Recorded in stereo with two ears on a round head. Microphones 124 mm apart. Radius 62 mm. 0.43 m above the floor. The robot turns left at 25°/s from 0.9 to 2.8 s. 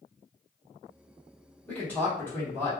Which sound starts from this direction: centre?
A man speaking, at 1.7 s.